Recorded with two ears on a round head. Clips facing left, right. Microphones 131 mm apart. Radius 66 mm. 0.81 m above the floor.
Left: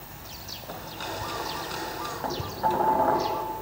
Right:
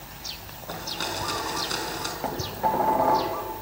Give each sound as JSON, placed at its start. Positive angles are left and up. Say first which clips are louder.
{"t": 0.7, "sound": "a blender", "louder": "right 3 dB", "side_deg": -60, "distance_m": 4.5}
{"t": 2.2, "sound": "dishes clattering", "louder": "right 1 dB", "side_deg": -15, "distance_m": 3.0}